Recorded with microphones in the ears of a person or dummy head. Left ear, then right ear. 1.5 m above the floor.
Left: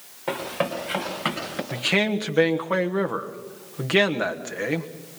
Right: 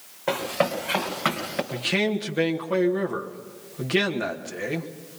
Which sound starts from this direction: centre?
Running footsteps, at 0.3 s.